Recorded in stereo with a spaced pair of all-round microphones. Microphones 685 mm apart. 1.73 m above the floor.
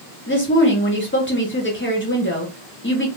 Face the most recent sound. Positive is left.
turn(degrees=20)  # may be behind; listen again after turning